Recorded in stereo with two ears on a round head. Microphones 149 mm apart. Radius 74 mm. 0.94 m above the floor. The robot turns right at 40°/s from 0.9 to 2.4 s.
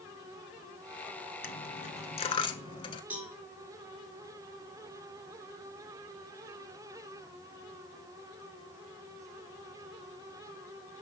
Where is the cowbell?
10° right (ahead or behind), 4.5 m.